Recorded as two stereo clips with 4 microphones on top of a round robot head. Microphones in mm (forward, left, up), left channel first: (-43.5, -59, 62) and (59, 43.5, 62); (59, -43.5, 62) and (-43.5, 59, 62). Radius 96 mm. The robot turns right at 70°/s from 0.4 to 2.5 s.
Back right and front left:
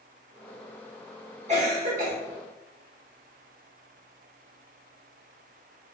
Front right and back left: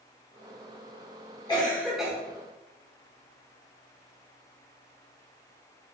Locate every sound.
1.5 s a cough: 10° left, 1.1 m; by 2.1 s 55° left, 1.1 m